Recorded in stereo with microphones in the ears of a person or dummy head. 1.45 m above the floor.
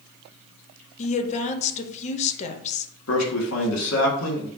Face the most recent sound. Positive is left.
turn(degrees=80)